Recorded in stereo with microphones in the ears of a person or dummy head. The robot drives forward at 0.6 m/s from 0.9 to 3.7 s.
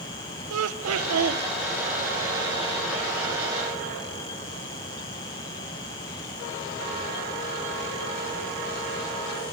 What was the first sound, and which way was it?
Laughter, 85° right.